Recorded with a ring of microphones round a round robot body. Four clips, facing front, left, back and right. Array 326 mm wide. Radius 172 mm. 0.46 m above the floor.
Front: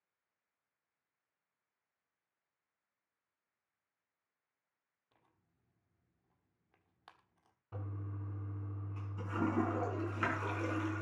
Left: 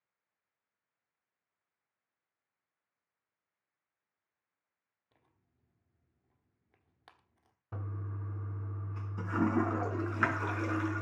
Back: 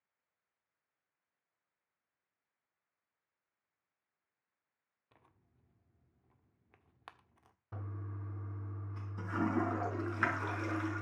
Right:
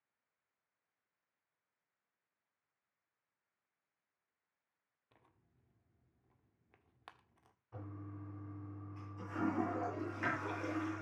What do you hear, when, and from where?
5.1 s tearing paper: 160° right, 1.4 m
7.7 s a toilet flushing: 100° left, 4 m